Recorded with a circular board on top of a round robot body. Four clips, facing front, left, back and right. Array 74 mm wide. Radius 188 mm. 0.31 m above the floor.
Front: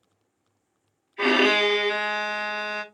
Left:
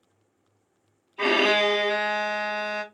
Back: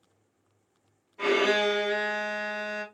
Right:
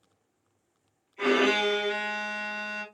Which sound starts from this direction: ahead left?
A violin, at 1.2 s.